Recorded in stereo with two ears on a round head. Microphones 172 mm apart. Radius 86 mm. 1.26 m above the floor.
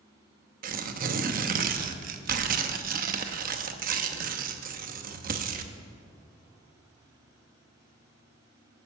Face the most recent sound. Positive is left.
turn(degrees=-45)  # may be behind; listen again after turning